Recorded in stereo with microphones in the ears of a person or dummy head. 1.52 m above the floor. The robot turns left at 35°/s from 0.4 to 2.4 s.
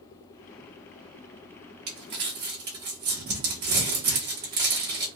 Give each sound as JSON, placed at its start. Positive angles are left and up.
{"t": 1.9, "sound": "crumpling", "side_deg": -35, "distance_m": 0.8}